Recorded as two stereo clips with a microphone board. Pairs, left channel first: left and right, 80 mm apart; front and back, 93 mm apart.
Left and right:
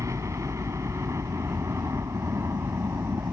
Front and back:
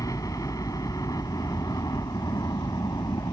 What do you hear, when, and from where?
0.0 s a helicopter: 45° right; by 3.3 s 40° right